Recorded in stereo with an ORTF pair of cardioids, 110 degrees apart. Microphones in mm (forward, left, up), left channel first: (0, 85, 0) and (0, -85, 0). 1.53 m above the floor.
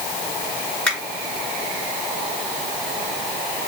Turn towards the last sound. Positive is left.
turn(degrees=5)